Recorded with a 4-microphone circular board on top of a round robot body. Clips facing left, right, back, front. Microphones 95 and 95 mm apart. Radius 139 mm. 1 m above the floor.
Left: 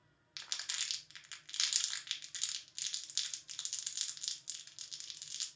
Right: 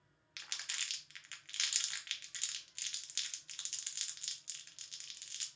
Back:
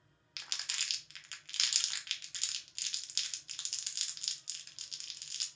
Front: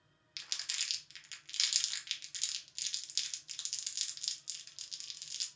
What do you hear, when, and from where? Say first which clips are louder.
0.4 s crumpling: even, back 3 dB; 155° left, 0.8 m